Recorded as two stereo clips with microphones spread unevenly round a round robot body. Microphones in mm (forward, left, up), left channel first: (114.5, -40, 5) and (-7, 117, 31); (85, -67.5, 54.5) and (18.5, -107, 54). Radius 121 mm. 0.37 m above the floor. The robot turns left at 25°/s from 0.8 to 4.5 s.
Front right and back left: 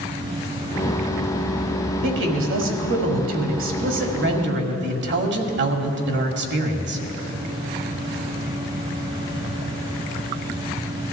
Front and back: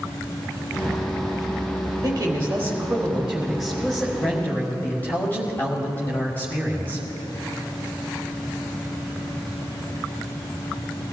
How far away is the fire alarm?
No fire alarm in this recording.